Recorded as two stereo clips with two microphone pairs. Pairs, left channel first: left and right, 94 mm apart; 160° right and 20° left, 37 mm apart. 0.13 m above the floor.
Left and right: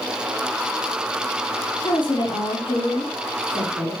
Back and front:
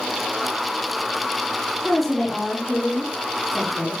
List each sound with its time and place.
1.8 s a woman speaking: 120° left, 4 m